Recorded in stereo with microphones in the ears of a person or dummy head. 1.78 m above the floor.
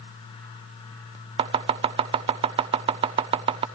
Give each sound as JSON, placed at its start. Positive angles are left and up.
{"t": 1.4, "sound": "chopping", "side_deg": -30, "distance_m": 0.5}